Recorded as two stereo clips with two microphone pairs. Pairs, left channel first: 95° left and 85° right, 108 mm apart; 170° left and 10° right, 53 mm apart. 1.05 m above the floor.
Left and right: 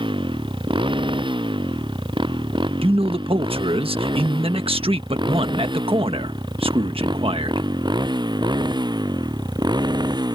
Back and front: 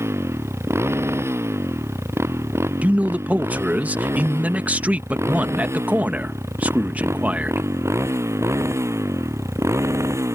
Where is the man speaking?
70° right.